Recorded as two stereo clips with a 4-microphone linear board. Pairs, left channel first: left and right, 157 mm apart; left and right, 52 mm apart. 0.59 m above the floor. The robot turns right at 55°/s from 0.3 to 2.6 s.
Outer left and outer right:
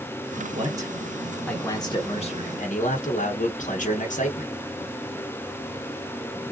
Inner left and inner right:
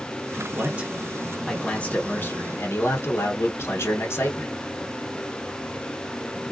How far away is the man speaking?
About 0.9 m.